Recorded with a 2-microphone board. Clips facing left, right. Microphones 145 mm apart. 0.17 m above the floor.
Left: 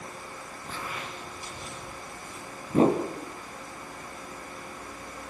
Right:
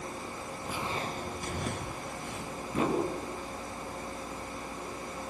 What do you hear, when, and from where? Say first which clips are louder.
0.7 s footsteps: right 3 dB; 5° right (ahead or behind), 0.8 m; by 2.6 s 70° right (ahead or behind), 3 m
2.7 s a whoosh: left 7 dB; 35° left (ahead or behind), 4.5 m